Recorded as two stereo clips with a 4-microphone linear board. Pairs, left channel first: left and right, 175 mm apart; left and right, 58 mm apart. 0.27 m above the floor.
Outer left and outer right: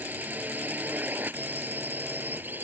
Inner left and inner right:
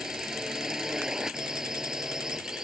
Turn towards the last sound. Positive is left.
turn(degrees=-10)  # may be behind; listen again after turning